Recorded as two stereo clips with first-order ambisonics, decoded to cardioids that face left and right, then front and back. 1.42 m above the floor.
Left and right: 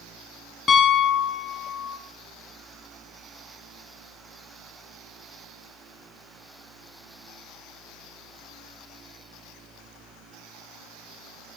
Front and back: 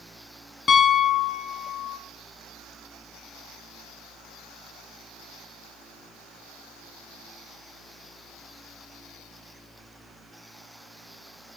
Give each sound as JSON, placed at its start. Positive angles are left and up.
{"t": 0.7, "sound": "a piano", "azimuth_deg": 40, "distance_m": 1.0}